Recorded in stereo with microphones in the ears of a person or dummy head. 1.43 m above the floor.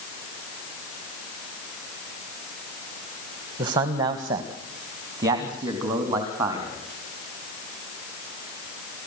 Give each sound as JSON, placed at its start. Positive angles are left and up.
{"t": 3.6, "sound": "a man speaking", "side_deg": -20, "distance_m": 1.5}